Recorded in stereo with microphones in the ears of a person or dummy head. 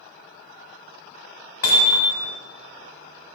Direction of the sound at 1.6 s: 65° left (ahead or behind).